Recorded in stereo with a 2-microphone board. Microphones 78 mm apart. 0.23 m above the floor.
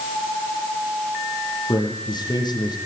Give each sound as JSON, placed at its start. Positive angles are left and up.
{"t": 1.7, "sound": "a man speaking", "side_deg": 65, "distance_m": 8.0}